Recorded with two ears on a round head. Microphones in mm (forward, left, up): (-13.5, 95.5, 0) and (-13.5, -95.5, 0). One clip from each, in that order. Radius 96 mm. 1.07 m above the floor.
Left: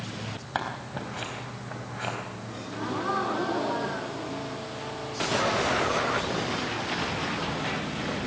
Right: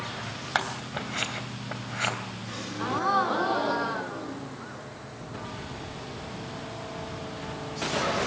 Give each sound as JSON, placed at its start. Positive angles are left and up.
{"t": 0.6, "sound": "scissors", "side_deg": -50, "distance_m": 3.0}
{"t": 2.5, "sound": "a gasp", "side_deg": -50, "distance_m": 3.0}